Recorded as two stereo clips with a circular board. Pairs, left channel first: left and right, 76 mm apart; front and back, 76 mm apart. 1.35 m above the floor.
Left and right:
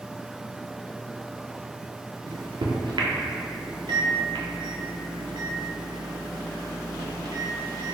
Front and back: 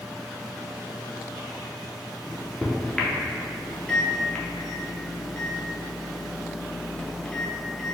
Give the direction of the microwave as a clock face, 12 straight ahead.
3 o'clock.